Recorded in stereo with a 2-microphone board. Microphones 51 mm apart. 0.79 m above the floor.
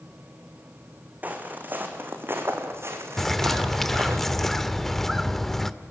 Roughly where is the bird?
Centre.